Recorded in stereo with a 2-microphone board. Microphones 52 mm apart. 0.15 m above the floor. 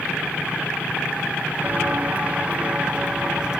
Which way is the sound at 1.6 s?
30° right (ahead or behind).